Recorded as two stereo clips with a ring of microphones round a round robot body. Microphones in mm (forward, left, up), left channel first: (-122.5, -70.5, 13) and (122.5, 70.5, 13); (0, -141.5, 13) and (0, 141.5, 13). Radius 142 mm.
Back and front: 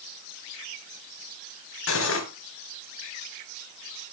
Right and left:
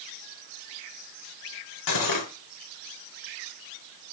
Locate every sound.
1.9 s cutlery clinking: 105° right, 3 m